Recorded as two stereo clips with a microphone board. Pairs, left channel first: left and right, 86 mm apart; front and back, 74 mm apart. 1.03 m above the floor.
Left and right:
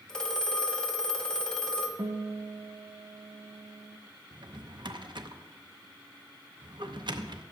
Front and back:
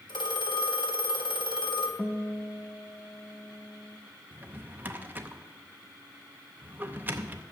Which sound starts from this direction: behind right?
A drawer, at 4.3 s.